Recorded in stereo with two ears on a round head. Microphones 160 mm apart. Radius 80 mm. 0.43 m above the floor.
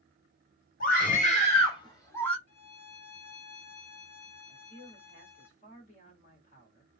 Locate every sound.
0.8 s a scream: 50° left (ahead or behind), 1.6 m; by 2.4 s 5° left (ahead or behind), 1.0 m
2.5 s a violin: 35° left (ahead or behind), 1.1 m
4.5 s a man speaking: 50° left (ahead or behind), 1.6 m